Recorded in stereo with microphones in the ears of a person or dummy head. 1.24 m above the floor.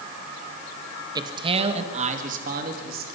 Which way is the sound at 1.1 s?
15° right (ahead or behind).